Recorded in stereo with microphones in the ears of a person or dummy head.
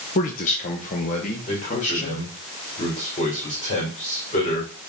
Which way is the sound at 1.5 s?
40° left (ahead or behind).